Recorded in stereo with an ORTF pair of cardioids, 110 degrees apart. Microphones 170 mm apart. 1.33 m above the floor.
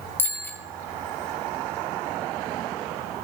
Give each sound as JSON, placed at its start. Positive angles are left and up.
{"t": 0.2, "sound": "a bicycle bell", "azimuth_deg": 10, "distance_m": 3.5}